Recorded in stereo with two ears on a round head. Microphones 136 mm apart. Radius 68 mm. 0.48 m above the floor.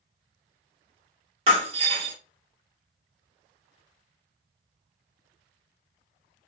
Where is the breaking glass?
35° right (ahead or behind), 1.1 m.